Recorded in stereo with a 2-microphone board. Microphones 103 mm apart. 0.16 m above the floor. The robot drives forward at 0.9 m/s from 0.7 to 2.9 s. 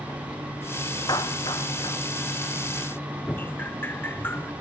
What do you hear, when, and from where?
1.1 s a clap: 40° left (ahead or behind); by 2.0 s 45° left (ahead or behind)
3.3 s dripping: 20° left (ahead or behind)